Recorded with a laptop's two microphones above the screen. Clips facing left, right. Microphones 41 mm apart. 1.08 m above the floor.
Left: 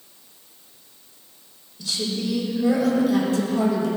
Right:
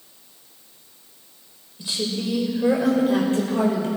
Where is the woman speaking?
25° right (ahead or behind), 4 m; by 3.9 s 40° right (ahead or behind), 4 m.